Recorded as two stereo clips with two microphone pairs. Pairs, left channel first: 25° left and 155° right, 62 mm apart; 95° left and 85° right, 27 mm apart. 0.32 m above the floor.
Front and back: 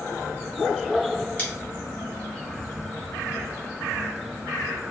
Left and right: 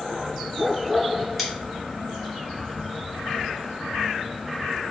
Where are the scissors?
15° left, 1.4 m.